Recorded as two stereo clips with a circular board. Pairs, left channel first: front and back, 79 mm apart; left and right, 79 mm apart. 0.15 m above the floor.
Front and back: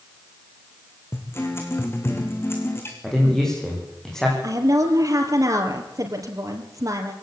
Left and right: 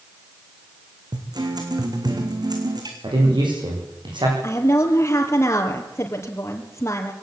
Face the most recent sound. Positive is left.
turn(degrees=145)